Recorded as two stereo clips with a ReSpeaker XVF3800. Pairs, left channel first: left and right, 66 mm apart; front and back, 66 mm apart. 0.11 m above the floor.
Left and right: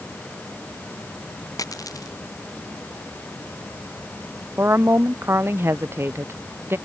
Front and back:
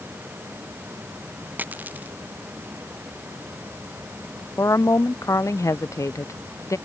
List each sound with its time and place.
1.6 s a dropped coin: 115° left
4.6 s a woman speaking: 40° right